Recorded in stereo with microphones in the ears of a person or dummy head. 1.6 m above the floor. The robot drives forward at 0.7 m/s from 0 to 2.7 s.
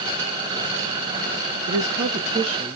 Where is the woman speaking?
35° right (ahead or behind), 0.6 m; by 2.8 s 25° right (ahead or behind), 0.9 m.